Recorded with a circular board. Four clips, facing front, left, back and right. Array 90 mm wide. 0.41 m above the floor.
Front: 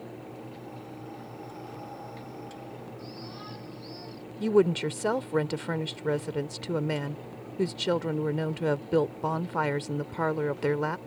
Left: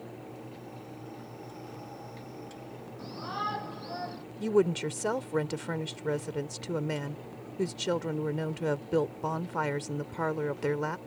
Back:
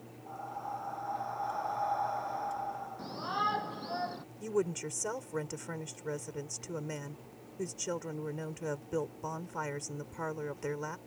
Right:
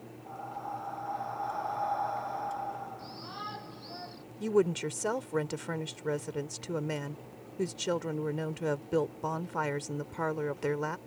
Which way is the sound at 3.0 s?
150° left.